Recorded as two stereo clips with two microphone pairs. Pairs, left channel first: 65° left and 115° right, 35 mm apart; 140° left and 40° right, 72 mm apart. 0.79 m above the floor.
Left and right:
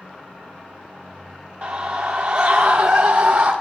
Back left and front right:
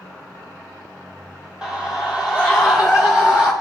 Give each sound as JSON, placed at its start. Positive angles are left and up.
{"t": 1.6, "sound": "a scream", "azimuth_deg": -115, "distance_m": 1.4}